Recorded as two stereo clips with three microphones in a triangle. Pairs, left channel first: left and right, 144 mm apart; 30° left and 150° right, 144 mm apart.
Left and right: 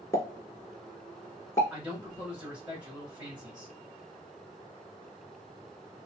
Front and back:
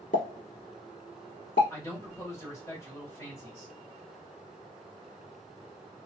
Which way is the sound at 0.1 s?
20° left.